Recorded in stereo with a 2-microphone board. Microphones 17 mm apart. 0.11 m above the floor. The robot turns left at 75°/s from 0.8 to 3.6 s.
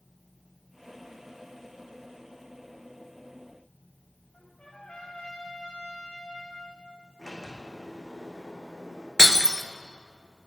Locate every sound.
4.3 s a trumpet: 70° left (ahead or behind), 8 m
7.2 s a sliding door: centre (ahead or behind), 6.5 m
9.2 s breaking glass: 30° left (ahead or behind), 1.2 m